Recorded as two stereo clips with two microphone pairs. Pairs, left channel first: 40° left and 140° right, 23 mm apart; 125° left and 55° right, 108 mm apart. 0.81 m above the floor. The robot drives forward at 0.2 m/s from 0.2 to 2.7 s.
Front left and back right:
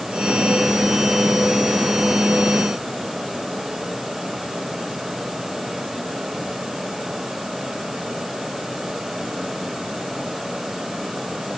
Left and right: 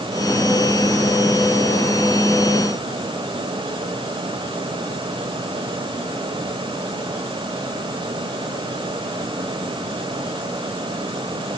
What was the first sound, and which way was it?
Only background noise.